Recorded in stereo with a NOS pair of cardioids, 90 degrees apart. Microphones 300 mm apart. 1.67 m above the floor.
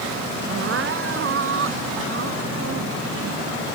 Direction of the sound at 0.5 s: 45° right.